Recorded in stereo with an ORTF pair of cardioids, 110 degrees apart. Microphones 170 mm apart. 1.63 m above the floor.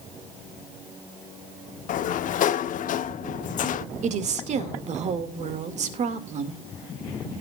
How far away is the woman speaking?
About 2 m.